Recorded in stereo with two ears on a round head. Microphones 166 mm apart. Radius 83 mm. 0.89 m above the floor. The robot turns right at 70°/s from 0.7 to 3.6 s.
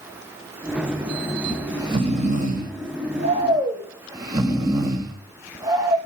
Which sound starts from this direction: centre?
Snoring, at 1.4 s.